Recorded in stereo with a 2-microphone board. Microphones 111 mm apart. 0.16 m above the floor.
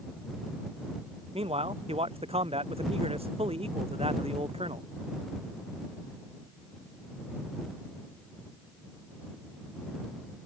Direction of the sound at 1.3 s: 60° right (ahead or behind).